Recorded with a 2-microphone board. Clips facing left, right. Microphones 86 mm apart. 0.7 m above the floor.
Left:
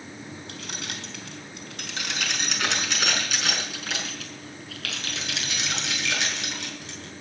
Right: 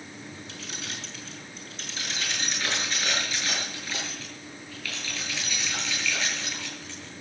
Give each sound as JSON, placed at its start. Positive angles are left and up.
{"t": 0.5, "sound": "keys jangling", "side_deg": 60, "distance_m": 4.0}